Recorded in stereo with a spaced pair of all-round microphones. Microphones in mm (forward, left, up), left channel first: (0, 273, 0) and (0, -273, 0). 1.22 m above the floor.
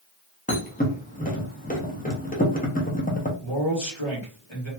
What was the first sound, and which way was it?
A thud, 15° left (ahead or behind).